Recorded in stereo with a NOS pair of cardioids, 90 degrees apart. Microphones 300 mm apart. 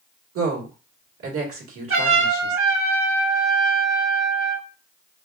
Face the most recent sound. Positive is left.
turn(degrees=-45)